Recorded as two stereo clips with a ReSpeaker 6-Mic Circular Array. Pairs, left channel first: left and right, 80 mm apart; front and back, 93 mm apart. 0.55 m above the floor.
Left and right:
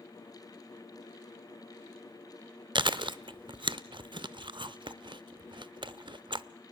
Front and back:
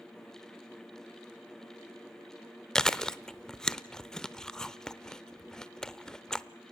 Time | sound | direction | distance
2.8 | chewing | 85° right | 0.6 m